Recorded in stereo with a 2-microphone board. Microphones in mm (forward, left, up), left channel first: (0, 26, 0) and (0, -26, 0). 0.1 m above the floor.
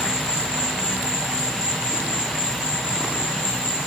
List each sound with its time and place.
0.0 s an insect: 20° right (ahead or behind), 1.1 m